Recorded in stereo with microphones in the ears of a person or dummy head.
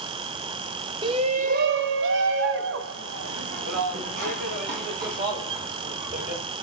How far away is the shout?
About 0.7 m.